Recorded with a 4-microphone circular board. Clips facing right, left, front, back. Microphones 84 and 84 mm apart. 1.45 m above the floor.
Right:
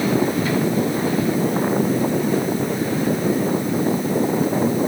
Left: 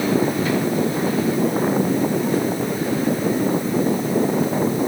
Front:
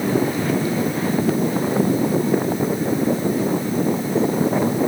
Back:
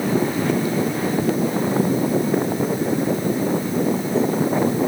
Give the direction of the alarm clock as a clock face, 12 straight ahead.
No alarm clock in this recording.